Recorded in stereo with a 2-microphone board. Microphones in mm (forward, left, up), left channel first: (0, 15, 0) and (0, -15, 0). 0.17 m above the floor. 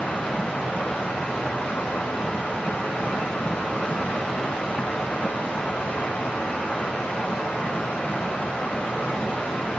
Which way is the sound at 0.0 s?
65° left (ahead or behind).